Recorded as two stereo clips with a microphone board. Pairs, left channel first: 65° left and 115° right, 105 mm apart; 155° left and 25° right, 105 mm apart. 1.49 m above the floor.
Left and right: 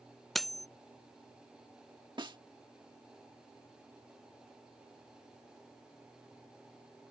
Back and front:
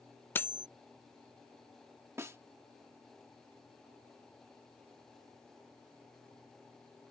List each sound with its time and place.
0.3 s cutlery clinking: 155° left
2.2 s a snare drum: 80° right